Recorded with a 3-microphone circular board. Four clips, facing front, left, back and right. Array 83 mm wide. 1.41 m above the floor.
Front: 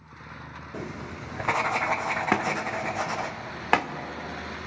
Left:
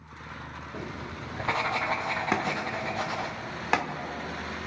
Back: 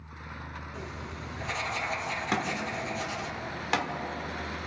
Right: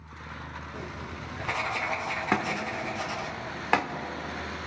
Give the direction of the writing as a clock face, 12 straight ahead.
11 o'clock.